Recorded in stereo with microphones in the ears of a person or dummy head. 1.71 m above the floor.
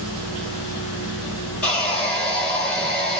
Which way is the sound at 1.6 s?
5° left (ahead or behind).